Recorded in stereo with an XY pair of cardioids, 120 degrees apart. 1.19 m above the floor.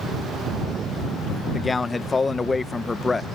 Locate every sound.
1.5 s a man speaking: 20° left